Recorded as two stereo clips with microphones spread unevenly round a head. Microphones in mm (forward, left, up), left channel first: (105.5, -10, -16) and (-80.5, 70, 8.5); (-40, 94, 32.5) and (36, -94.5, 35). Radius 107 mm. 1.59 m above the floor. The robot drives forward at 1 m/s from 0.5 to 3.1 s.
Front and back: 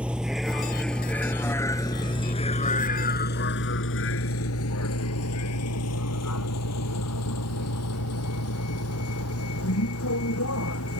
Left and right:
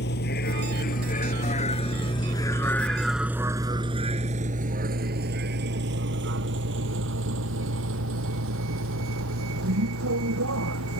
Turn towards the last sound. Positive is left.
turn(degrees=-50)